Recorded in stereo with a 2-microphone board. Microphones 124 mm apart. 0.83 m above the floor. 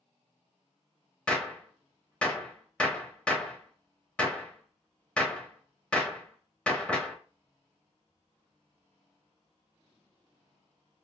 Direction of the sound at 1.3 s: 10° left (ahead or behind).